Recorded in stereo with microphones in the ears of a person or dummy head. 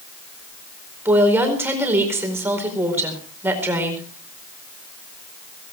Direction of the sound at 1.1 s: 10° right (ahead or behind).